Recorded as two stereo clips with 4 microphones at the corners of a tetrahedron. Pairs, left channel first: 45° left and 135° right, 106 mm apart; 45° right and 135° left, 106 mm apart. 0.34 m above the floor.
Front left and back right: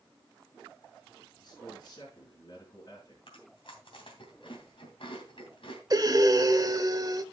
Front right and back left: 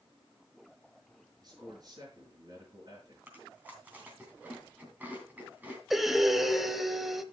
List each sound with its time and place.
1.4 s a man speaking: 90° left, 4 m
3.3 s chewing: 65° left, 2.5 m
5.9 s breathing: 135° right, 0.7 m